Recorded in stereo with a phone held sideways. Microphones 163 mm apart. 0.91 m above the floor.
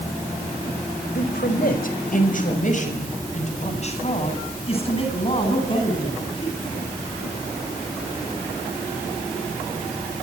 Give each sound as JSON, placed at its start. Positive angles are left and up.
{"t": 1.1, "sound": "a man speaking", "side_deg": 70, "distance_m": 4.5}